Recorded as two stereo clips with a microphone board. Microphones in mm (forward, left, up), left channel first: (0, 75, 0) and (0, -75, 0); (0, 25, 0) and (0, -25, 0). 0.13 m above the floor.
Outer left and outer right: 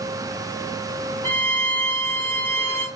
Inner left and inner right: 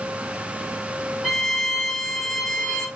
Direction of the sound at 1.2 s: 15° left (ahead or behind).